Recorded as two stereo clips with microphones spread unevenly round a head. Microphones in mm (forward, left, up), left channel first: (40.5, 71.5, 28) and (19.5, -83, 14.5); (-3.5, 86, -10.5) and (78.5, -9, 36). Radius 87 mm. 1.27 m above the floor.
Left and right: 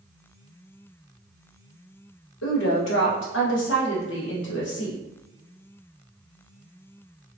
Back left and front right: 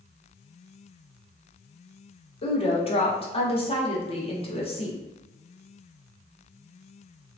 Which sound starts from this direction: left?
A woman speaking, at 2.4 s.